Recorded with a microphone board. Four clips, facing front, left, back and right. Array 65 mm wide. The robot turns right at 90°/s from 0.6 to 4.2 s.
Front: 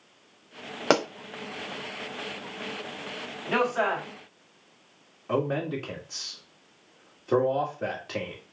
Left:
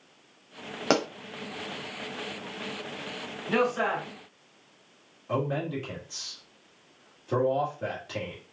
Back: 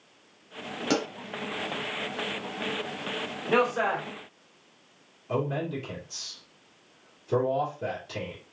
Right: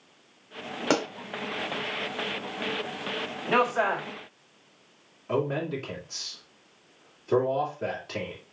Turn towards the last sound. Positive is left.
turn(degrees=-15)